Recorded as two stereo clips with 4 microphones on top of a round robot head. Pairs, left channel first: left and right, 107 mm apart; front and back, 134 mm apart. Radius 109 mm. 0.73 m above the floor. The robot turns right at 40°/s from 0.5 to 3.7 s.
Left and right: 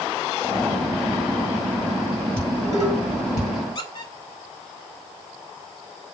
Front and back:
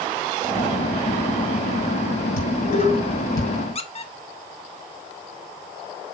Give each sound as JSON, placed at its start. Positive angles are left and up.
{"t": 2.4, "sound": "dishes clattering", "azimuth_deg": 20, "distance_m": 6.5}
{"t": 3.8, "sound": "a squeak", "azimuth_deg": 40, "distance_m": 1.3}